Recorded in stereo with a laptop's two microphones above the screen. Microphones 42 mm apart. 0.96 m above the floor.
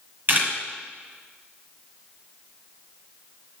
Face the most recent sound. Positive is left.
turn(degrees=-40)  # may be behind; listen again after turning